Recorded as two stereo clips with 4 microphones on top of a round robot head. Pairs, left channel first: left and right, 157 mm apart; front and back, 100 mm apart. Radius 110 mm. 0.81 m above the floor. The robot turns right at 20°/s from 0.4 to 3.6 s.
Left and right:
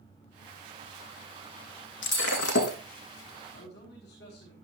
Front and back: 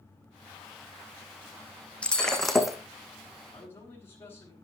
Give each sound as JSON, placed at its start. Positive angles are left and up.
{"t": 2.0, "sound": "breaking glass", "azimuth_deg": 75, "distance_m": 3.0}
{"t": 3.5, "sound": "a man speaking", "azimuth_deg": 65, "distance_m": 5.5}